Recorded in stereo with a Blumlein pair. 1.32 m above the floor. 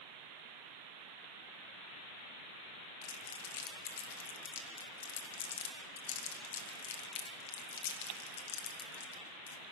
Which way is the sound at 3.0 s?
55° left.